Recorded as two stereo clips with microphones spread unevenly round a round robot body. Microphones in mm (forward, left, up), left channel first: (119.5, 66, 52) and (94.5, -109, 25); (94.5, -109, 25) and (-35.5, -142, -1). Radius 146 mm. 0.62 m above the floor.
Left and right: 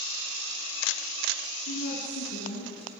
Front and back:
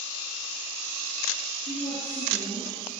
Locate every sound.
1.7 s a woman speaking: 95° left, 8.5 m